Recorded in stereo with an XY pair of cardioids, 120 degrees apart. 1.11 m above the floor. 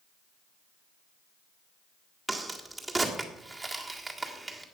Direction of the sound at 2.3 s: 10° right.